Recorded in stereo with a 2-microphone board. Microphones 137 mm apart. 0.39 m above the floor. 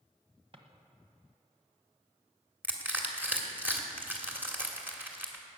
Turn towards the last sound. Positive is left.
turn(degrees=-15)  # may be behind; listen again after turning